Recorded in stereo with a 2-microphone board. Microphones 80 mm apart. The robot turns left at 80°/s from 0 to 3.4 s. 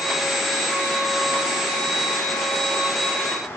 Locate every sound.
Only background noise.